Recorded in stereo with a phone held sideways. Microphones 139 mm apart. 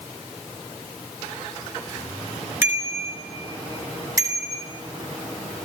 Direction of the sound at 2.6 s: 15° right (ahead or behind).